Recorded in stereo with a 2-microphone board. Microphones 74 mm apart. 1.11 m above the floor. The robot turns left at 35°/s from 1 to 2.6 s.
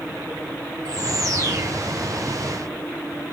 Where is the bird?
60° right (ahead or behind), 0.9 m; by 1.7 s 35° right (ahead or behind), 0.9 m.